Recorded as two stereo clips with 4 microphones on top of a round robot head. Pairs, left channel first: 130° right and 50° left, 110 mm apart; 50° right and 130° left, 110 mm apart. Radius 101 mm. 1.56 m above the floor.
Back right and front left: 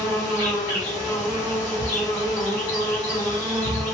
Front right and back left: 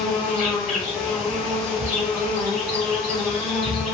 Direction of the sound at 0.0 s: 175° right.